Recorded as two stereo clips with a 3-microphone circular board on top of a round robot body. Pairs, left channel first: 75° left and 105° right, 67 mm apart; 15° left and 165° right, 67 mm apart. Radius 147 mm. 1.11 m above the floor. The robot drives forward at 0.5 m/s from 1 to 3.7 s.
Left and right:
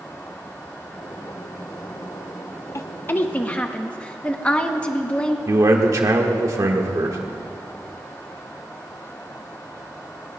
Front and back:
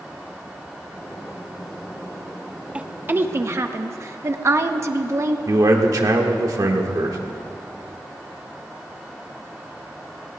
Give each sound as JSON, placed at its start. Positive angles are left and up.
{"t": 2.8, "sound": "a woman speaking", "azimuth_deg": 120, "distance_m": 0.6}
{"t": 5.5, "sound": "a man speaking", "azimuth_deg": -140, "distance_m": 1.6}